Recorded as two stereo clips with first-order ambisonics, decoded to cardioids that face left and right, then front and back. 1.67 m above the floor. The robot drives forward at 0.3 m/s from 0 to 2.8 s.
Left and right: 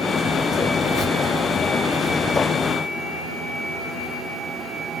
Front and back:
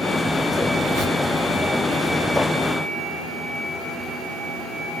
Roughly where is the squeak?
Behind left.